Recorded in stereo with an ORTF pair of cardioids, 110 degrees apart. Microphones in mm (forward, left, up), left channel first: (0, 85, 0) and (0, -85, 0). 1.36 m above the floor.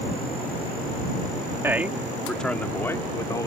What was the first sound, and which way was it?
A man speaking, 15° right.